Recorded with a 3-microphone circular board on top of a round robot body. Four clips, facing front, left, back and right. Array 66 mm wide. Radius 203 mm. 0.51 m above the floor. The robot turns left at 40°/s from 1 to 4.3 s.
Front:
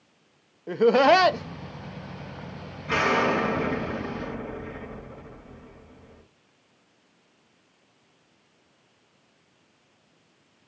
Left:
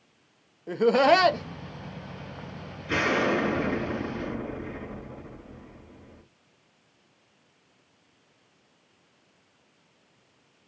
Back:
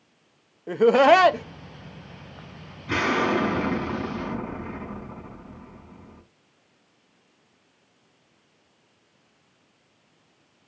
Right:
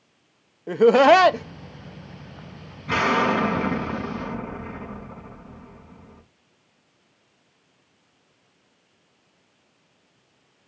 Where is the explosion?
85° right, 4 m; by 6.2 s 140° right, 4 m.